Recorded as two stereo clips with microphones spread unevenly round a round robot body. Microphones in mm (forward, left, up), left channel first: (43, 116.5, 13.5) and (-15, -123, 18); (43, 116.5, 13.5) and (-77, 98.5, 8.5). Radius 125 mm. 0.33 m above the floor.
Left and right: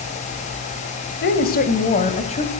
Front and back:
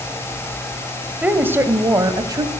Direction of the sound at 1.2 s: 115° left.